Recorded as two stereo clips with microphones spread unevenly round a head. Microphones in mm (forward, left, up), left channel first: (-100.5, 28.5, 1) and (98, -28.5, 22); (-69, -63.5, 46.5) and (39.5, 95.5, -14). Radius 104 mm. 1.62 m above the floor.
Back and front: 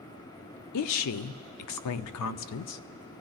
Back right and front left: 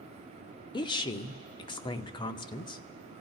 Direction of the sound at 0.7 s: 165° left.